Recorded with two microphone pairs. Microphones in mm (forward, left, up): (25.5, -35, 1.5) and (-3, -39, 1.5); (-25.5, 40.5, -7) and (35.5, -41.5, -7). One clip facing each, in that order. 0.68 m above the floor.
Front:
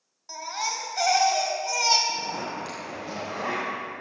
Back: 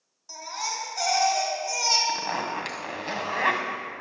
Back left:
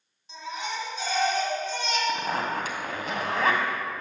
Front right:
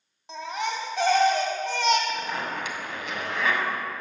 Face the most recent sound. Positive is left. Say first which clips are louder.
# back 2 dB, back left 3 dB
turn(degrees=175)